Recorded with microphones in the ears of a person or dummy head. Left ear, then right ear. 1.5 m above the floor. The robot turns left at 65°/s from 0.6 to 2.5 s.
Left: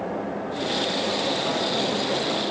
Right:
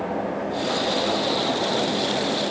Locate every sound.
Only background noise.